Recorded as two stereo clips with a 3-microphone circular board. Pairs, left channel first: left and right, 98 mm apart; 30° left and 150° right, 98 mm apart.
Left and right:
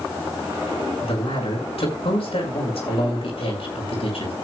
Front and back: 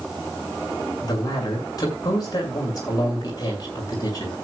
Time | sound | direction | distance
1.0 | a man speaking | 80° left | 6 m